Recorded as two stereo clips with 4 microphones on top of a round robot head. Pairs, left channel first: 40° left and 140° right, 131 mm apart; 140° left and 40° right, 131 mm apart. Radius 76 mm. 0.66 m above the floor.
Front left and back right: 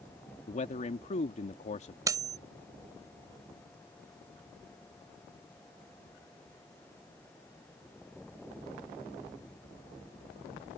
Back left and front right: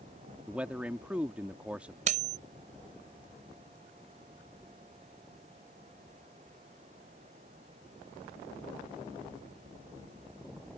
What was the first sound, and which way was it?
A man speaking, 40° left.